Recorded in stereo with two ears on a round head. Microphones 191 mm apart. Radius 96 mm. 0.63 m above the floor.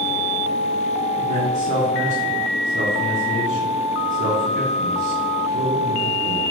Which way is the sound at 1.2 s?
40° right (ahead or behind).